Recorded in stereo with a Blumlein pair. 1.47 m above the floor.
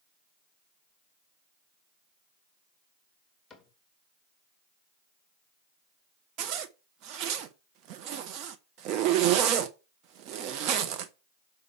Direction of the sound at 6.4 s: 40° right.